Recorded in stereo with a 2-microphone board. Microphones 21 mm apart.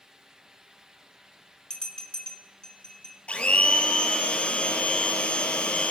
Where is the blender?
55° left (ahead or behind), 1.2 m.